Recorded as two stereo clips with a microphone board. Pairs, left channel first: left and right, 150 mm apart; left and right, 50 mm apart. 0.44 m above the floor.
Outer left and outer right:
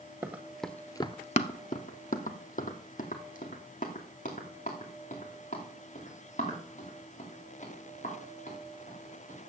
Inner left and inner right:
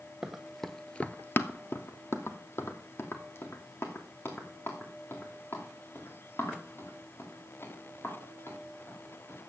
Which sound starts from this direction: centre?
Running footsteps, at 0.2 s.